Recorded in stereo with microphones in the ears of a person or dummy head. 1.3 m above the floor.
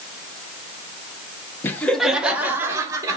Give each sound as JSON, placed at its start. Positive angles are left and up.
{"t": 1.6, "sound": "laughter", "side_deg": 15, "distance_m": 1.2}